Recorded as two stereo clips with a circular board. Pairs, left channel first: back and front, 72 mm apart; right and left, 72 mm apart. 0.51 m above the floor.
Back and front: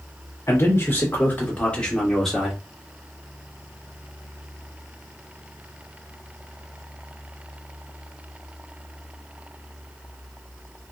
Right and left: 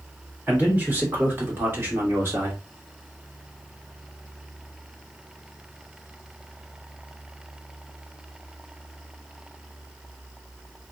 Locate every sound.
0.5 s a man speaking: 150° left, 1.9 m; by 2.6 s 85° left, 1.4 m